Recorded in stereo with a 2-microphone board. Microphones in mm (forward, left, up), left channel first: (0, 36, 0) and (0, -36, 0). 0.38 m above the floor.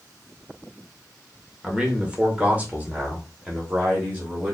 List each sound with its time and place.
1.6 s a man speaking: 10° right (ahead or behind), 1.3 m; by 4.5 s 25° right (ahead or behind), 1.9 m